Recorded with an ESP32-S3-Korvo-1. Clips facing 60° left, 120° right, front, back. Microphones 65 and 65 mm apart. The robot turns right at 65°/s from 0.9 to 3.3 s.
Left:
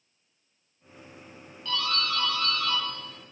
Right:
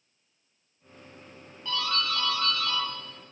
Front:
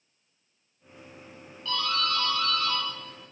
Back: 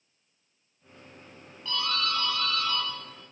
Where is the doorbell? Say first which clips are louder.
Even, front 2 dB; 130° right, 1.4 m; by 2.8 s 55° right, 1.4 m.